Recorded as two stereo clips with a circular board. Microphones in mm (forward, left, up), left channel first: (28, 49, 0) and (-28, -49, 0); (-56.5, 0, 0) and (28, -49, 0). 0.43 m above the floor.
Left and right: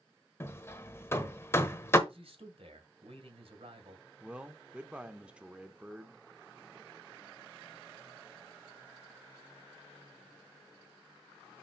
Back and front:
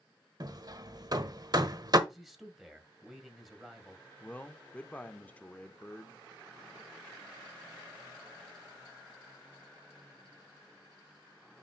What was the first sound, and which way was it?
Hammering, straight ahead.